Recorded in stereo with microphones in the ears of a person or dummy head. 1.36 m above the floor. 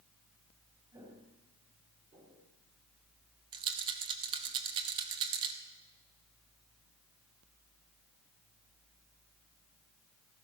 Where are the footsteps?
30° right (ahead or behind), 4.5 m; by 2.5 s 40° right (ahead or behind), 4.5 m.